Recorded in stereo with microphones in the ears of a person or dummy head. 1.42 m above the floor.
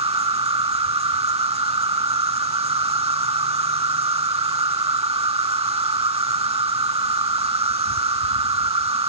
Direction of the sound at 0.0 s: 35° right (ahead or behind).